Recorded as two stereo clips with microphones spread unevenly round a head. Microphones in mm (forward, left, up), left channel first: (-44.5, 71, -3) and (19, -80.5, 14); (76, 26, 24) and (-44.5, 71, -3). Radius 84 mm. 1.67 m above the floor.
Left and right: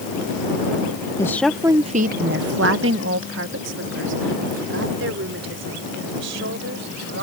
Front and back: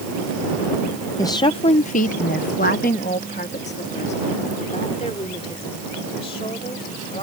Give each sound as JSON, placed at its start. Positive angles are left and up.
{"t": 1.2, "sound": "a woman speaking", "azimuth_deg": 40}